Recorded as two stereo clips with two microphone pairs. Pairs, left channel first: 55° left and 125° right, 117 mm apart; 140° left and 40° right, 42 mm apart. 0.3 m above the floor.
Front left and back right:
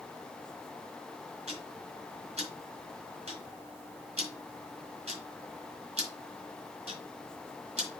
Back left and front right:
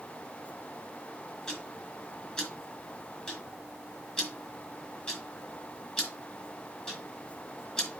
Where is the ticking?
155° right, 3.5 m.